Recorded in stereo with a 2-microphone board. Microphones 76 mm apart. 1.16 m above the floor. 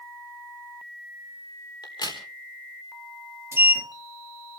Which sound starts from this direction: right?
A sliding door, at 3.5 s.